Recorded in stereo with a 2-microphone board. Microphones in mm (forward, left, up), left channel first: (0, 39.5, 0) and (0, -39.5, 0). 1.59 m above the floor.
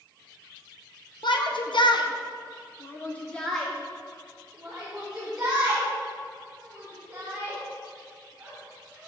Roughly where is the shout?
Left.